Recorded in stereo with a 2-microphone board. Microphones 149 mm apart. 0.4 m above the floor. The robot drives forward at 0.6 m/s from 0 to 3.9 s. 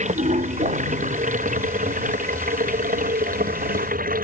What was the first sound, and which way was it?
Running water, 55° right (ahead or behind).